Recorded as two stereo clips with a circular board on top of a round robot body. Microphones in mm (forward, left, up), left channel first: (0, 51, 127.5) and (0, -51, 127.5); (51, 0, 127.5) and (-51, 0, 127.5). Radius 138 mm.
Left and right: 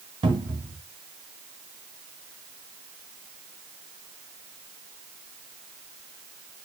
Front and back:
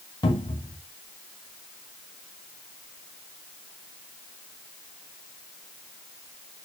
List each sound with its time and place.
0.2 s a cupboard door: 45° right, 2.5 m